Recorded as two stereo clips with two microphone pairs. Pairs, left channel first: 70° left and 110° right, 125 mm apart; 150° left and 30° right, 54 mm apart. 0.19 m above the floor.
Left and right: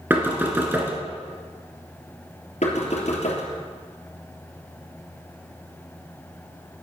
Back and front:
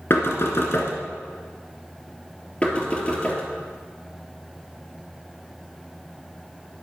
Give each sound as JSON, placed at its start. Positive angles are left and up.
{"t": 0.1, "sound": "knocking", "azimuth_deg": 180, "distance_m": 2.0}
{"t": 2.6, "sound": "knocking", "azimuth_deg": 85, "distance_m": 3.0}